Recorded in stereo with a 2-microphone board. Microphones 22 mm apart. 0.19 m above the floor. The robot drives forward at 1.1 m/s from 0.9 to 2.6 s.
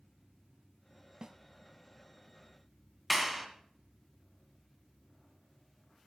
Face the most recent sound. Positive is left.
turn(degrees=-5)  # may be behind; listen again after turning